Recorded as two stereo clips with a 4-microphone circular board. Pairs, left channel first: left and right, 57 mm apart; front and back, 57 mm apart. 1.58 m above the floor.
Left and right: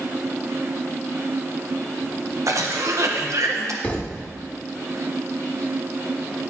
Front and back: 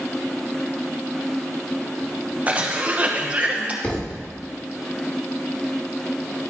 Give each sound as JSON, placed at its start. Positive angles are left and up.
{"t": 2.5, "sound": "a cough", "azimuth_deg": -115, "distance_m": 1.3}
{"t": 3.8, "sound": "a thud", "azimuth_deg": 50, "distance_m": 1.4}